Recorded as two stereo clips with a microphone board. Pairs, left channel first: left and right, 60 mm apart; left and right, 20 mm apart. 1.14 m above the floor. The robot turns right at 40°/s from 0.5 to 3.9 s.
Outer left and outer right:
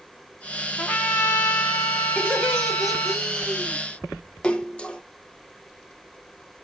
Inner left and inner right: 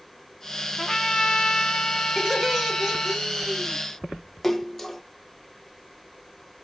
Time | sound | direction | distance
0.8 | a trumpet | 35° left | 1.2 m
2.2 | laughter | 155° left | 4 m
4.4 | a splash | 15° left (ahead or behind) | 0.7 m